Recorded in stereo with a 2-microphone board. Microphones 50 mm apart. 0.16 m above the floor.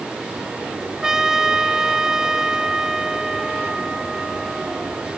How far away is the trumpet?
About 0.9 m.